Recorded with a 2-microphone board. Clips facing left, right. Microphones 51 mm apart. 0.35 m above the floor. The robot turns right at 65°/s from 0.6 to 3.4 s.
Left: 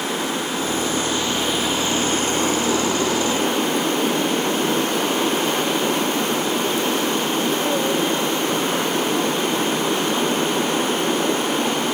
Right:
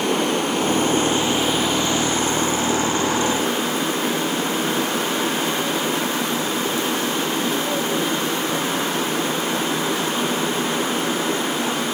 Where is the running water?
65° right, 3.5 m; by 11.9 s 120° left, 3.5 m.